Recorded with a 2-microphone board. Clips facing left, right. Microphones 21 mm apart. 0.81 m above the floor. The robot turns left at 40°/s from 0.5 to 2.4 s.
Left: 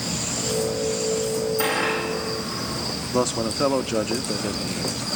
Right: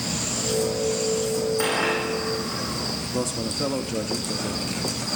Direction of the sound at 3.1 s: 40° left (ahead or behind).